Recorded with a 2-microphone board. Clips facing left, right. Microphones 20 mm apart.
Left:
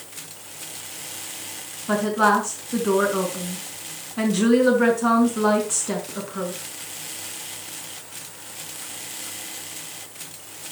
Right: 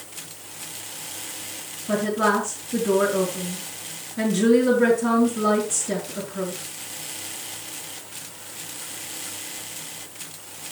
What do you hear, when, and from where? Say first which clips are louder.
1.9 s a woman speaking: left 2 dB; 75° left (ahead or behind), 5 m